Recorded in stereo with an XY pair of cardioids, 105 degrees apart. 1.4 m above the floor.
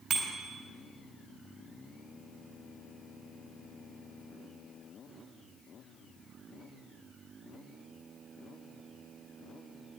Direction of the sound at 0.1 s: 70° right.